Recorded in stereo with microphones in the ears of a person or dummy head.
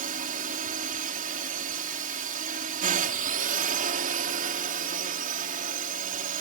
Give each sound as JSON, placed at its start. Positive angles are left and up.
{"t": 0.0, "sound": "a drone", "side_deg": -45}